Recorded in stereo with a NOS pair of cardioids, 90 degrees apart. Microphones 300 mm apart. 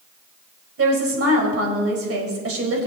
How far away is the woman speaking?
About 4.5 m.